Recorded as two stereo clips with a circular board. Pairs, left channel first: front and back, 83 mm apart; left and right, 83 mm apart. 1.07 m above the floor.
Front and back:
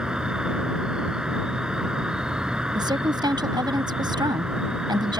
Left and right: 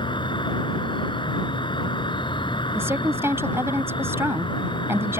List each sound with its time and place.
0.0 s an insect: 100° left
2.8 s a woman speaking: 150° right